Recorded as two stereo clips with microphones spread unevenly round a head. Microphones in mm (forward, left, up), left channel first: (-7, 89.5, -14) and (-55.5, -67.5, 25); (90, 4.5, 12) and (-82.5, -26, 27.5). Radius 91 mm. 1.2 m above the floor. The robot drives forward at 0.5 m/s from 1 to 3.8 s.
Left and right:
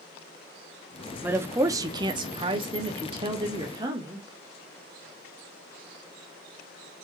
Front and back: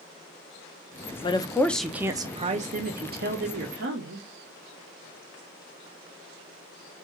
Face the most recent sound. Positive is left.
turn(degrees=-175)